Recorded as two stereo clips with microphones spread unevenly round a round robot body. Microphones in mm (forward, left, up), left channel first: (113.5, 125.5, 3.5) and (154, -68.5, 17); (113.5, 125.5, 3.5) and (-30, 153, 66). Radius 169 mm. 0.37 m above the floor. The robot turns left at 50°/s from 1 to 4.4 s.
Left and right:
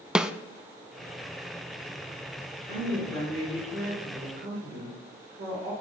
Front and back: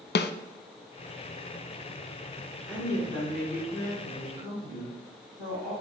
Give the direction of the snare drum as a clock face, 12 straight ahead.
12 o'clock.